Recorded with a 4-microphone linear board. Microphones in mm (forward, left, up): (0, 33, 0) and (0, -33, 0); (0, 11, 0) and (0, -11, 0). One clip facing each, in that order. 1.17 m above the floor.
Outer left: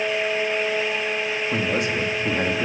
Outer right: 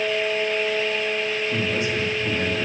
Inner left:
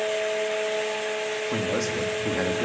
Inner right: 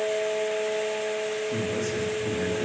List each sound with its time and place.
1.5 s a man speaking: 75° left (ahead or behind), 2.5 m